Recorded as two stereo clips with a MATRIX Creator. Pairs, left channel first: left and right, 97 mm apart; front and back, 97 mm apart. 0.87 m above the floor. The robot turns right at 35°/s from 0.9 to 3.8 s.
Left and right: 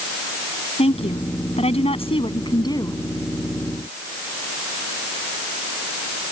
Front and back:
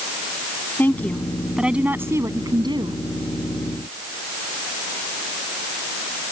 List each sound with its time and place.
0.8 s a woman speaking: 75° left; by 3.0 s 145° left